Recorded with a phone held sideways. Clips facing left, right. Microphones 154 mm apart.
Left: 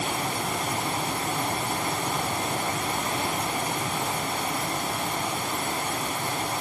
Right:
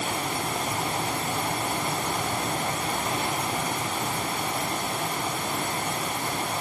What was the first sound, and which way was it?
Only background noise.